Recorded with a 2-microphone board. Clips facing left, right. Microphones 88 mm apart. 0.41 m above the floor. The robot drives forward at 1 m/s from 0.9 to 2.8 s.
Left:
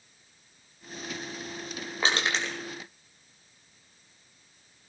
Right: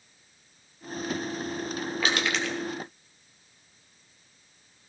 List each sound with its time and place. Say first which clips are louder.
2.0 s crushing: left 1 dB; 30° left (ahead or behind), 3 m; by 2.5 s 35° left (ahead or behind), 2.5 m